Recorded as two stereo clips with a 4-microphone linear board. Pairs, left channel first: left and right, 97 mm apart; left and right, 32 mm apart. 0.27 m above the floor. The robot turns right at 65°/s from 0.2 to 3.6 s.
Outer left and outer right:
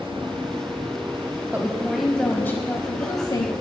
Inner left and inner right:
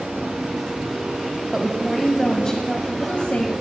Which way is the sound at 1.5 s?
30° right.